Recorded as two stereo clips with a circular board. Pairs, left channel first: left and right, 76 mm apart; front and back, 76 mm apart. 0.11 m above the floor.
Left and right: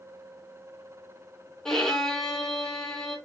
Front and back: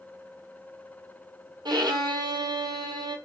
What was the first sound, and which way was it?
A violin, 170° left.